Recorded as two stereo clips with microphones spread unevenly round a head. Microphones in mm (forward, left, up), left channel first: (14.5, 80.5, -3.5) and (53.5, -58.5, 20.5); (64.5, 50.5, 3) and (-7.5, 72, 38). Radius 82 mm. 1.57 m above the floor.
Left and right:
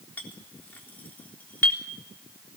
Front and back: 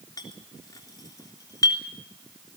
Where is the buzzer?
I don't hear a buzzer.